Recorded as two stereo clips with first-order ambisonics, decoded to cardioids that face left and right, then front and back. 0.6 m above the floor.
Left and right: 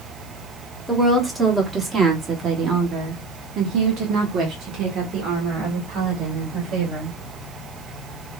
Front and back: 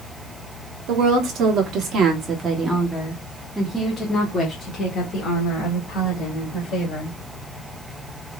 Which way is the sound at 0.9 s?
175° right.